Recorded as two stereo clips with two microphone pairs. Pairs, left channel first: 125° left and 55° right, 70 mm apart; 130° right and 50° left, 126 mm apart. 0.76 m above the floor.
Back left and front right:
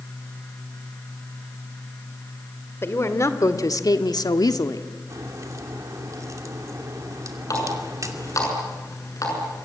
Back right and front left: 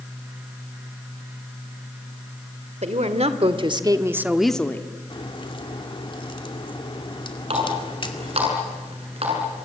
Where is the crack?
85° right, 2.5 m.